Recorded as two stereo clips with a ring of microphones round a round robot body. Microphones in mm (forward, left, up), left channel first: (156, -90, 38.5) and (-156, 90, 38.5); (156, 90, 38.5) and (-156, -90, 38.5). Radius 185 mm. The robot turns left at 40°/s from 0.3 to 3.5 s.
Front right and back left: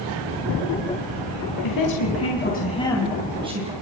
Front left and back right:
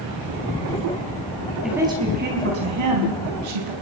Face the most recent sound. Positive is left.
turn(degrees=-135)